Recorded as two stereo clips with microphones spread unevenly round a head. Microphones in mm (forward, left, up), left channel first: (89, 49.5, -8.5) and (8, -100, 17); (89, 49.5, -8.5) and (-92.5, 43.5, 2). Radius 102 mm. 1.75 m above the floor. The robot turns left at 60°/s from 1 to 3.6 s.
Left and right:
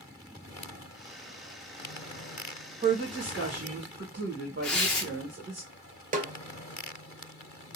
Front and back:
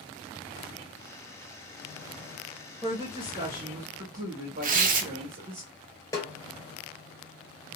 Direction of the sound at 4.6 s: 155° left.